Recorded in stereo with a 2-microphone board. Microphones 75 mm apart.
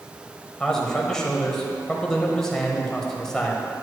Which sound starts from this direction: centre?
A man speaking, at 0.6 s.